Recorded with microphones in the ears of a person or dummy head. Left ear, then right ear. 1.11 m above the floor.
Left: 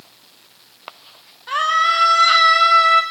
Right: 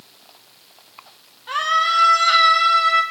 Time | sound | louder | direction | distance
1.5 | a scream | left 2 dB | 5° left (ahead or behind) | 2.5 m